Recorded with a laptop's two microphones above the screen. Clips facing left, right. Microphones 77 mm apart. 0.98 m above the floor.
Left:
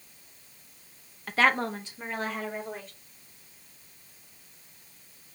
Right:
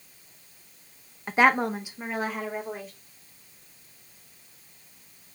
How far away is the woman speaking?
About 0.7 m.